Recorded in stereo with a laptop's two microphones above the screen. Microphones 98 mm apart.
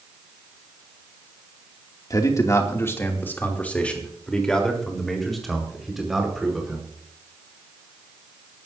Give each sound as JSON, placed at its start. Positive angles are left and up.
{"t": 2.1, "sound": "a man speaking", "side_deg": 35, "distance_m": 2.0}